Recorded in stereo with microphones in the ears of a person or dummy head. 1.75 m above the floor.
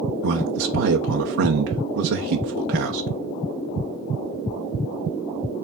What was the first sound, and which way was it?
A man speaking, 55° right (ahead or behind).